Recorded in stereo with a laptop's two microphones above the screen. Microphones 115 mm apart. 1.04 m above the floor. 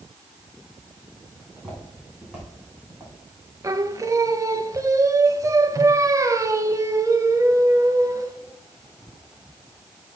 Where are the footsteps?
Centre (ahead or behind), 3 m; by 3.5 s 15° right (ahead or behind), 4 m.